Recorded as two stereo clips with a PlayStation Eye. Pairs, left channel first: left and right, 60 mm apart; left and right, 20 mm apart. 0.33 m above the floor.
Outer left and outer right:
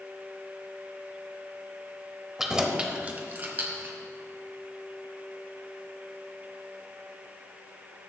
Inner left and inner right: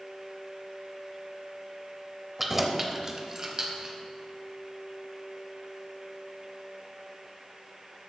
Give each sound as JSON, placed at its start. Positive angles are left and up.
{"t": 2.4, "sound": "keys jangling", "side_deg": -5, "distance_m": 0.7}